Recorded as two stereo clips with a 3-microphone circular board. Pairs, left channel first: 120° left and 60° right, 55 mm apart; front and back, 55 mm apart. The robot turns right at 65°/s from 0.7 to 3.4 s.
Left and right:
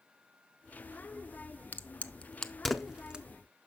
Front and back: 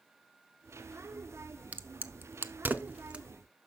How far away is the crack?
About 0.5 m.